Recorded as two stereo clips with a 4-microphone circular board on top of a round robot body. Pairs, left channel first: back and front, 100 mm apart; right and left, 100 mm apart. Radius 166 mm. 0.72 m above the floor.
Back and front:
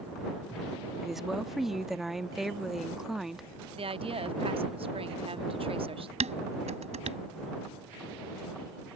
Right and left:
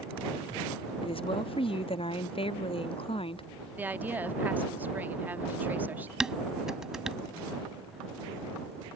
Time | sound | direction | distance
1.0 | a woman speaking | 85° right | ?
3.8 | a woman speaking | 15° left | ?
6.2 | dishes clattering | 5° left | ?